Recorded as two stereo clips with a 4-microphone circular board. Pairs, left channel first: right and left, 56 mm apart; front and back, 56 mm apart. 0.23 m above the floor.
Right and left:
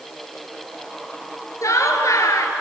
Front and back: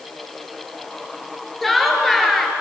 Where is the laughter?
85° right, 4 m.